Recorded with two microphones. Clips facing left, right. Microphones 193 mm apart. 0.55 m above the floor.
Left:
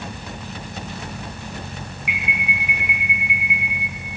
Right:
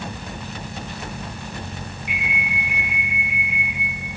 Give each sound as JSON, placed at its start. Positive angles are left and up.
{"t": 2.1, "sound": "an alarm", "side_deg": 80, "distance_m": 8.5}